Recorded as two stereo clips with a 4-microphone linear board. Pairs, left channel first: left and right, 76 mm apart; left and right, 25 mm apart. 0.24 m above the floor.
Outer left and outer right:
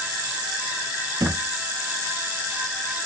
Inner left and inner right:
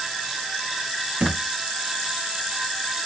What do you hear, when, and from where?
1.2 s a thud: 60° right (ahead or behind), 0.7 m